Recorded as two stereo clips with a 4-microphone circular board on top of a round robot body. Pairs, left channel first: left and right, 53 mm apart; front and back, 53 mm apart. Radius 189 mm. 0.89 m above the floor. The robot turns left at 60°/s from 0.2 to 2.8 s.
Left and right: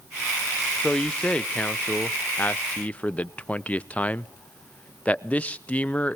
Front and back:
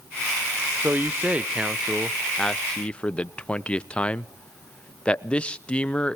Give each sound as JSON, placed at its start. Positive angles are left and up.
{"t": 0.8, "sound": "a man speaking", "azimuth_deg": 170, "distance_m": 0.9}